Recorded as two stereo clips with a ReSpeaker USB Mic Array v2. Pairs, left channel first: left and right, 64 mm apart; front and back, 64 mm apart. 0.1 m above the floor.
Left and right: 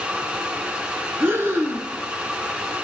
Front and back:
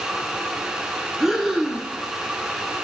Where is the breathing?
100° right, 1.4 m.